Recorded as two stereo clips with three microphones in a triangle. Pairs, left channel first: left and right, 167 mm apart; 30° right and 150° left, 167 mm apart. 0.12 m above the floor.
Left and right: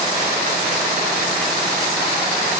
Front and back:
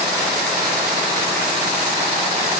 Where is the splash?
I don't hear a splash.